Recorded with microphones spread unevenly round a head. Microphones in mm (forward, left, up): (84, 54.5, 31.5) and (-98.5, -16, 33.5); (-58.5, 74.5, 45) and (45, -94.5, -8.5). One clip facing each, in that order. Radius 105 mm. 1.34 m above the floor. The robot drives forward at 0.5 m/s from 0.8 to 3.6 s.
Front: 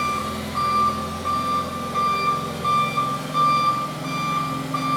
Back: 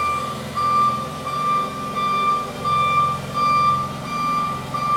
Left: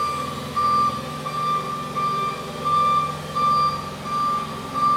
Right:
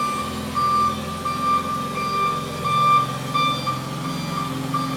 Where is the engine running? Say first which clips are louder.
Even, right 3 dB; 25° right, 4.5 m; by 5.0 s 35° right, 3.5 m.